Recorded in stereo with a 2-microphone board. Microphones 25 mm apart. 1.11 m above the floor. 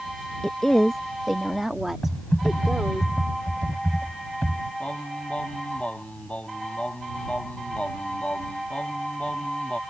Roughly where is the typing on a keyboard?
Left.